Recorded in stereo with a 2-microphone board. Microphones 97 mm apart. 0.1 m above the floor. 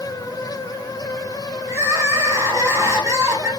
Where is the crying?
30° right (ahead or behind), 1.3 m.